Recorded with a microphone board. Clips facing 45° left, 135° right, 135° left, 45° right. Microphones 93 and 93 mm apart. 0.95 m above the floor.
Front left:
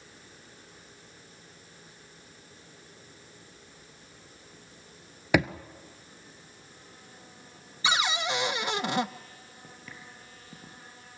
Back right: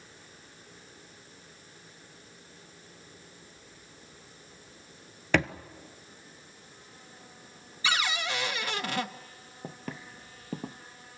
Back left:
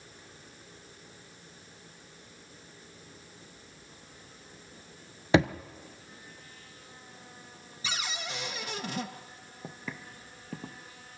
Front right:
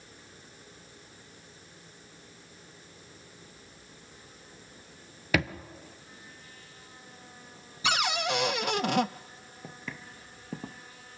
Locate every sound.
5.3 s a thud: 115° left, 1.0 m
7.8 s a cupboard door: 25° right, 0.6 m
9.6 s footsteps: 155° right, 1.5 m; by 10.8 s 115° right, 1.7 m